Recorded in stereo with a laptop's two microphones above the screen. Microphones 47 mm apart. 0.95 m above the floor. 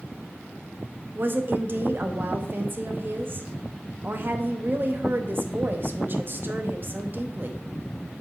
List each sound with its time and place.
1.1 s a woman speaking: 45° right (ahead or behind), 0.9 m